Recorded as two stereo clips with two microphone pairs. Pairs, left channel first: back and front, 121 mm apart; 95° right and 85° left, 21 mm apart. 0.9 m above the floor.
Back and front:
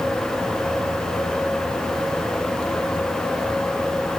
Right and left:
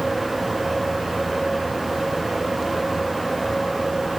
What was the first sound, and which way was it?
Only background noise.